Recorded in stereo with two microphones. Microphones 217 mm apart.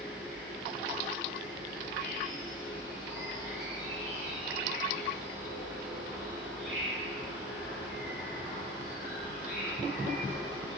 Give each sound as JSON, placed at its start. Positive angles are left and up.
{"t": 0.0, "sound": "an insect", "side_deg": -30, "distance_m": 1.6}